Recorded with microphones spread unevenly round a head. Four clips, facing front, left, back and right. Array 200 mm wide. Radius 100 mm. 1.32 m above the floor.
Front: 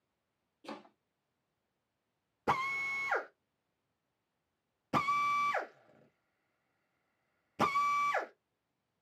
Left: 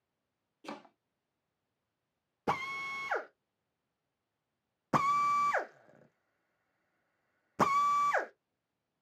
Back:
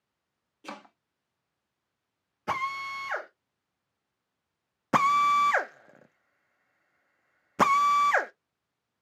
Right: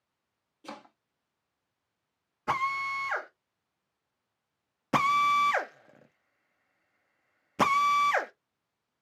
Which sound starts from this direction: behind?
A drill, at 4.9 s.